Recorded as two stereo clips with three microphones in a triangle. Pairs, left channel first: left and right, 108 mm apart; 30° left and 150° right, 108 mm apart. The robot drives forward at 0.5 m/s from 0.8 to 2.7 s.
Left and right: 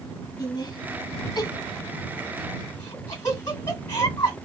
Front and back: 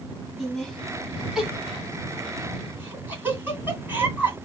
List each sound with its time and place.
0.4 s laughter: 120° left, 1.6 m; by 4.3 s 150° left, 2 m